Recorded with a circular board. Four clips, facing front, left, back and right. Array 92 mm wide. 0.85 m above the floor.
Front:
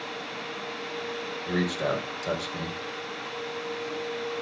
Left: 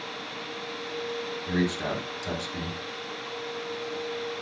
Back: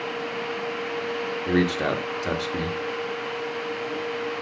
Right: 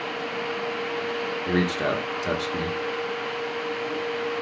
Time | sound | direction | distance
1.5 | a man speaking | 140° right | 2 m